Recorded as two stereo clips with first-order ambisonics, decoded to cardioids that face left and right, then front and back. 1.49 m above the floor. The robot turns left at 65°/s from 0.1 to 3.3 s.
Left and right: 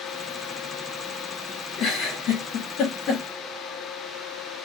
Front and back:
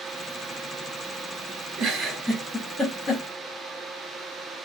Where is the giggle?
135° left, 2 m; by 3.2 s 40° left, 2 m.